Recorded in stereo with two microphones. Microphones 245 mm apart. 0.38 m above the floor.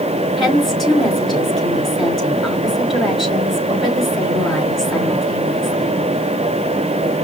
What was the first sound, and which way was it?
A woman speaking, centre (ahead or behind).